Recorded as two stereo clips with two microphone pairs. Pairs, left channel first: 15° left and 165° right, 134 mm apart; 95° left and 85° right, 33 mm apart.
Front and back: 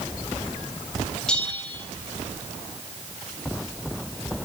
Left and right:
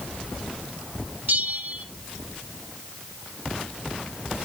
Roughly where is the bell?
Right.